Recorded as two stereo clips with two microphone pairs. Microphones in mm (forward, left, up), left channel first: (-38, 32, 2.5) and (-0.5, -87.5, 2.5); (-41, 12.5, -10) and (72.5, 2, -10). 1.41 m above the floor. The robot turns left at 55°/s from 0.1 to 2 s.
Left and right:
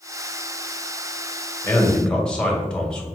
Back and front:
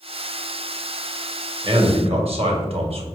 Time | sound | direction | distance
1.6 | a man speaking | 45° left | 1.0 m